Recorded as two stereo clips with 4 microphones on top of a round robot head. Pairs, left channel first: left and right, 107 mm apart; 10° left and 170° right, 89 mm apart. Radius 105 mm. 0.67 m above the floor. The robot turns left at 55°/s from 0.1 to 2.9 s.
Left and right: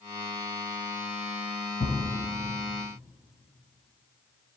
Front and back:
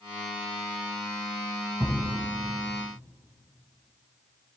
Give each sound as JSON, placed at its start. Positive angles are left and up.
{"t": 1.8, "sound": "a thud", "azimuth_deg": 125, "distance_m": 1.4}